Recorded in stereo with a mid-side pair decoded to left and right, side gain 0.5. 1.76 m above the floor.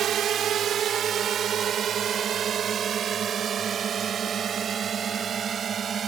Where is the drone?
55° right; by 6.1 s 45° right.